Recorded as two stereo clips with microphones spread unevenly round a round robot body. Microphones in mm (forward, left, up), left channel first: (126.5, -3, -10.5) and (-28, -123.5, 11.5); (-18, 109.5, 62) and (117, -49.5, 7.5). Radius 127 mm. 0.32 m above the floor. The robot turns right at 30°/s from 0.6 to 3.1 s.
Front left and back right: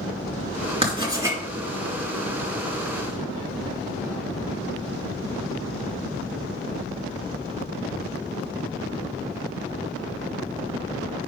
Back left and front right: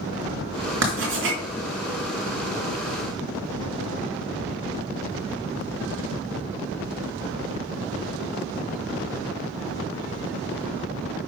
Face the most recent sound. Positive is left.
turn(degrees=-10)